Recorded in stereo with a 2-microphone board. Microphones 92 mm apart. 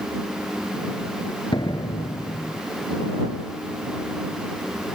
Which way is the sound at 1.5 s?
55° left (ahead or behind).